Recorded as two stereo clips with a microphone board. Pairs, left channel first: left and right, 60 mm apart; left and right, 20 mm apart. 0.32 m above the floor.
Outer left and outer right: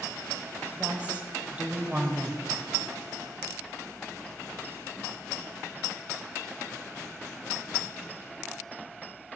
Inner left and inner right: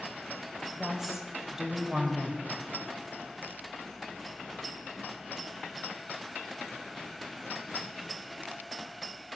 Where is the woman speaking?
25° right (ahead or behind), 1.2 m.